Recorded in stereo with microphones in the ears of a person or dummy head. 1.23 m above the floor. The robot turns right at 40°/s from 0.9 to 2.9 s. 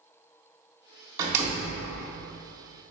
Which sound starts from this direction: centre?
A door slam, at 1.2 s.